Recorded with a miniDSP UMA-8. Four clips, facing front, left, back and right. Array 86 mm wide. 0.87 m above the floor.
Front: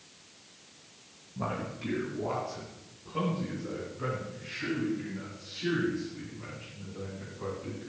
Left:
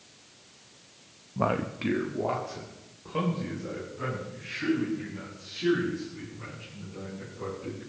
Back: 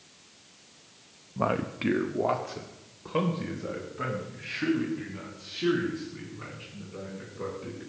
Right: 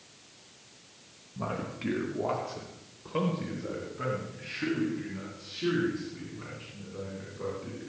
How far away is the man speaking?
About 0.7 m.